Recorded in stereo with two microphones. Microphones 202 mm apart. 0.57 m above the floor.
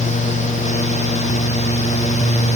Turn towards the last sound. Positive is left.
No sound to turn to.